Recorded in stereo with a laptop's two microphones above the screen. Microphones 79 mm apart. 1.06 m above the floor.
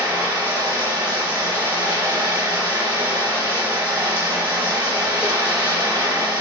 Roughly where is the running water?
Right.